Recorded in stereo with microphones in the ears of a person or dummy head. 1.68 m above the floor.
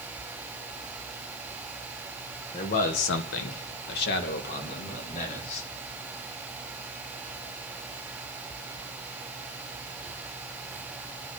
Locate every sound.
2.5 s a man speaking: 30° left (ahead or behind), 1.4 m; by 5.7 s 40° left (ahead or behind), 4.5 m